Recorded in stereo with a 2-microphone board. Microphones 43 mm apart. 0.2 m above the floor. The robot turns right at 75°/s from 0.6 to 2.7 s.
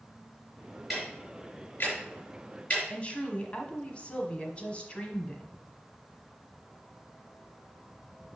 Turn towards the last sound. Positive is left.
turn(degrees=30)  # may be behind; listen again after turning